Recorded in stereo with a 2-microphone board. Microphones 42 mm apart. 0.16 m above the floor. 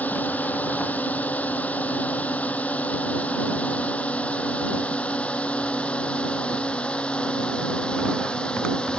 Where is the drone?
40° left (ahead or behind); by 9.0 s 25° left (ahead or behind).